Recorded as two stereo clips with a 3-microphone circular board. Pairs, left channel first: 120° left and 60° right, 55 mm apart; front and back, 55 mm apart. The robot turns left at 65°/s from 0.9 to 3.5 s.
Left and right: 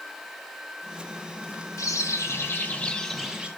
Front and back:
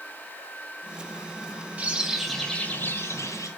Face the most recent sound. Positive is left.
turn(degrees=10)